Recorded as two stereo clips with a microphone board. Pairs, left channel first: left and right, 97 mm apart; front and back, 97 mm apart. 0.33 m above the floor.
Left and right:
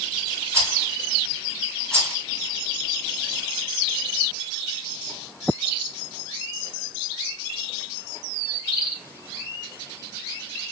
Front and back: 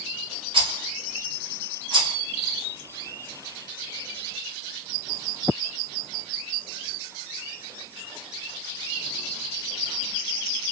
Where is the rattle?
150° right, 2.0 m.